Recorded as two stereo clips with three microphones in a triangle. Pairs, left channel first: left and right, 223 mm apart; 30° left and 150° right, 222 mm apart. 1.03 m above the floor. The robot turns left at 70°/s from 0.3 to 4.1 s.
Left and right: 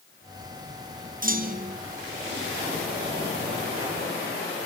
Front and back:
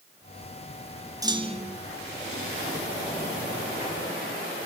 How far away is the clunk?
About 0.7 m.